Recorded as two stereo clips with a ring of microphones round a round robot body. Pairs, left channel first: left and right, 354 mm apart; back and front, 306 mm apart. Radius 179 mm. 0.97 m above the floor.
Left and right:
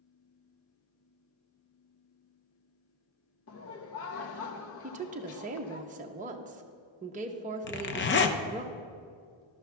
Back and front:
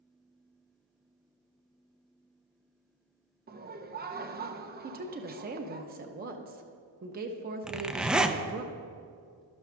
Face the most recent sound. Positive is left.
turn(degrees=85)